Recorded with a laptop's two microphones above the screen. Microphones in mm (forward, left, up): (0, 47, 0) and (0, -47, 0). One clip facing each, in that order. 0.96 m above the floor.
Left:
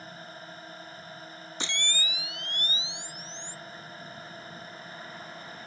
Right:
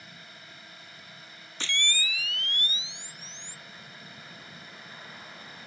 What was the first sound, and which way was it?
A drone, 40° left (ahead or behind).